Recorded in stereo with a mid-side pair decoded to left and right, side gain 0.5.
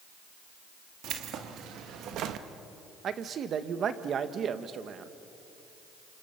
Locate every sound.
1.0 s keys jangling: 70° right, 2 m
3.0 s a man speaking: 50° right, 1.7 m